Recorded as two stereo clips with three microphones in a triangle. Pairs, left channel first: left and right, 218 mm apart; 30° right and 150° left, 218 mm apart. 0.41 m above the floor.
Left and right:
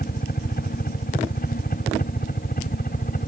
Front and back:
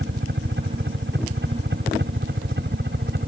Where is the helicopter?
130° left.